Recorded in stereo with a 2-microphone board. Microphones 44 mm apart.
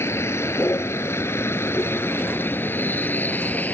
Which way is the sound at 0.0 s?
85° left.